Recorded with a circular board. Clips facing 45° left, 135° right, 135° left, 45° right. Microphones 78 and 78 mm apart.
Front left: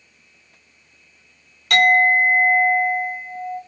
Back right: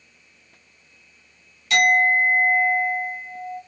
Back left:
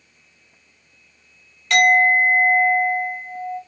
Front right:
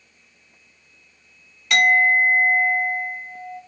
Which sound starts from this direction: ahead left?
A clink, at 1.7 s.